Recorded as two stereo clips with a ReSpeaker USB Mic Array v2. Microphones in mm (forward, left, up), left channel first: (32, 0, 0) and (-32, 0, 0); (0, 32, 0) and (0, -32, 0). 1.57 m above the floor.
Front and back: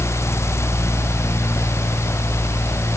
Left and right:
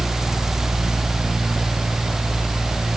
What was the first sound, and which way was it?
Only background noise.